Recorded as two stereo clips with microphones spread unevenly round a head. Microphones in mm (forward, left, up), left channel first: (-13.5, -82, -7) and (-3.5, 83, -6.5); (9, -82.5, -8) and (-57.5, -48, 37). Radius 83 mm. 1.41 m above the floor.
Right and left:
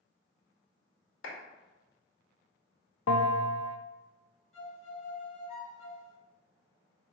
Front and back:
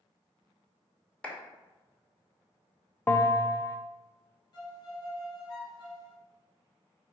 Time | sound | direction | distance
1.2 | a clap | 105° right | 2.5 m
3.1 | a bell | 80° right | 0.8 m
4.5 | a violin | 40° right | 3 m